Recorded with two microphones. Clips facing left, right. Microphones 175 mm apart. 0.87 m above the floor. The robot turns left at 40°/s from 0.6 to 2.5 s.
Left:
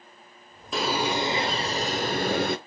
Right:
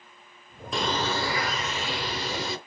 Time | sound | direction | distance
0.7 | a bird | straight behind | 0.9 m